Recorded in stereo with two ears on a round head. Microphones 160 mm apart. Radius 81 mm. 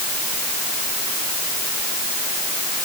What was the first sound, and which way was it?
Only background noise.